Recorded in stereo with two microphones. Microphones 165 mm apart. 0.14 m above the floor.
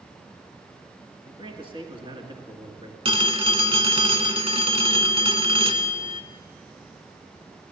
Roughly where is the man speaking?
Right.